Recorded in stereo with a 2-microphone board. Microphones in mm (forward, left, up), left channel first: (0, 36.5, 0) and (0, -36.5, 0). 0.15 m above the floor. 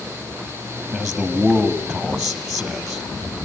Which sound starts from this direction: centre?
A man speaking, at 0.9 s.